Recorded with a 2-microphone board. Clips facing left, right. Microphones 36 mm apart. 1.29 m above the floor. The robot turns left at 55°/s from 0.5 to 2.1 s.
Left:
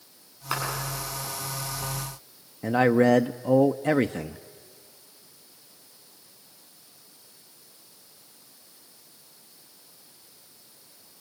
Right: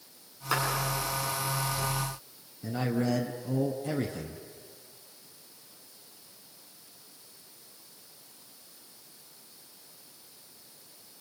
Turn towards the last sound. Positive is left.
turn(degrees=50)  # may be behind; listen again after turning